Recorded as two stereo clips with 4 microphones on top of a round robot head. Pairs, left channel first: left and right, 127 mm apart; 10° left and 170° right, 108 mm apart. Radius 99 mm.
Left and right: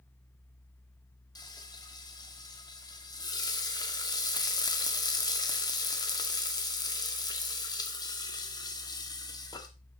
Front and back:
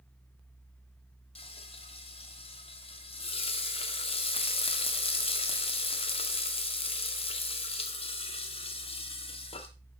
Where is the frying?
35° left, 1.6 m.